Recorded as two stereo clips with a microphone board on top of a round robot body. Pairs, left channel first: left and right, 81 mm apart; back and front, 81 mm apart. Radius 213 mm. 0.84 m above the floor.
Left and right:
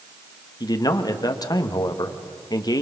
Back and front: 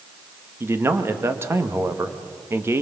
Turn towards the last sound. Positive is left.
turn(degrees=55)